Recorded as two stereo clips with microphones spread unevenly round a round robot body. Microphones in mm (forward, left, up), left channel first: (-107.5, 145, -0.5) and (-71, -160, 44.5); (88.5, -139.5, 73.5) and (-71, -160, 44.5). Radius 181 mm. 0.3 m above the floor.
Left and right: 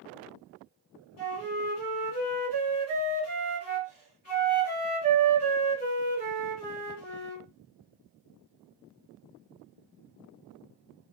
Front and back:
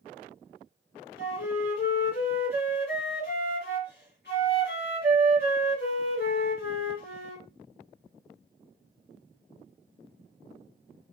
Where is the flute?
55° left, 1.3 m.